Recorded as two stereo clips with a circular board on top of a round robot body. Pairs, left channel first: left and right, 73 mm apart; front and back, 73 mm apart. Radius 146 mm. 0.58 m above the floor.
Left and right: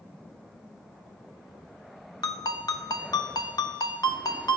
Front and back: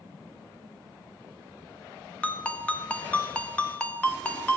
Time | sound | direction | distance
2.2 | a ringtone | 70° left | 1.0 m